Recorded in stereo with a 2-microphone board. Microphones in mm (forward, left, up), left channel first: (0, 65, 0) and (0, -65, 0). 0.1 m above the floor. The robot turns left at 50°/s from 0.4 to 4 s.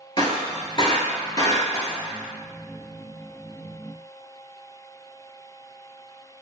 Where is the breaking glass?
35° left (ahead or behind), 0.7 m; by 2.0 s 20° left (ahead or behind), 0.7 m.